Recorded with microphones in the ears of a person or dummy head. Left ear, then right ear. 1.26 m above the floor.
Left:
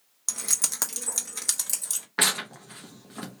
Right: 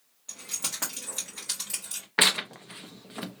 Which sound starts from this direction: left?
Keys jangling, at 0.3 s.